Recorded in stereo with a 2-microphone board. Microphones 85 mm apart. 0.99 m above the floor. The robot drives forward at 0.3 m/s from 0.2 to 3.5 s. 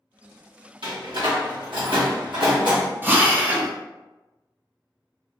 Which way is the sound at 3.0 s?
20° right (ahead or behind).